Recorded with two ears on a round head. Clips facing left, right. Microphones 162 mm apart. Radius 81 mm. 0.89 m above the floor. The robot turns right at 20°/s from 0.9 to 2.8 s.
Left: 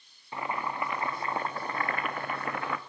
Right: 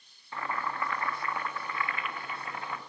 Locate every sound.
0.3 s boiling: 15° left, 0.5 m; by 2.8 s 55° left, 0.5 m